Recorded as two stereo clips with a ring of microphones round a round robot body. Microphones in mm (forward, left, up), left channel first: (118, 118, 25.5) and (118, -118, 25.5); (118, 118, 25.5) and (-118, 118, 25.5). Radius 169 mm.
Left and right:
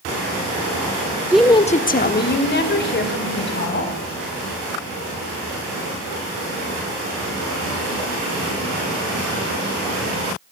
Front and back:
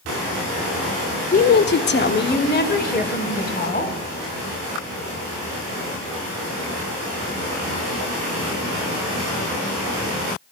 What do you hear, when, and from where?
1.3 s a woman speaking: 15° right, 0.6 m; by 4.0 s 50° left, 4 m